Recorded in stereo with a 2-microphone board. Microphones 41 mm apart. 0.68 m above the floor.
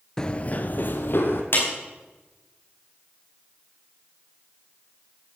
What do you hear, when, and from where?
0.2 s running footsteps: 15° left (ahead or behind), 0.6 m; by 1.4 s 65° left (ahead or behind), 1.7 m
1.5 s a clap: 65° left (ahead or behind), 4.5 m